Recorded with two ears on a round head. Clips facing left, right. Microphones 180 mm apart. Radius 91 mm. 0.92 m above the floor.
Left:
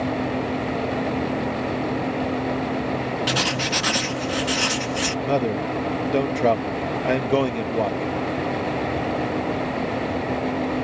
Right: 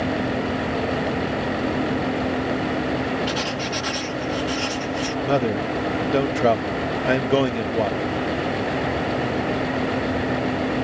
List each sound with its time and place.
3.3 s writing: 65° left (ahead or behind)
5.2 s a man speaking: 5° right (ahead or behind)